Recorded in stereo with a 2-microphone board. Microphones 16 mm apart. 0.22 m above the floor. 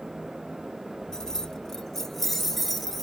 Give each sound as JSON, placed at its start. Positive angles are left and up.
{"t": 1.1, "sound": "keys jangling", "side_deg": 40, "distance_m": 1.1}